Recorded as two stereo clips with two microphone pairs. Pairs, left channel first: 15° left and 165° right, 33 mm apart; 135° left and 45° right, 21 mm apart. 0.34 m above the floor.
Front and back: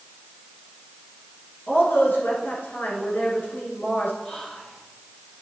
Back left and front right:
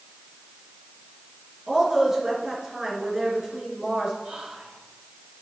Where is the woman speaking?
20° left, 4 m.